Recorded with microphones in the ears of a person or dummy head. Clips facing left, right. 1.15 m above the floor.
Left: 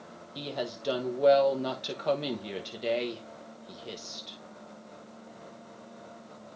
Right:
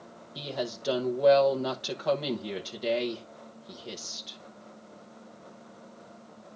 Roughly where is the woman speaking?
Centre.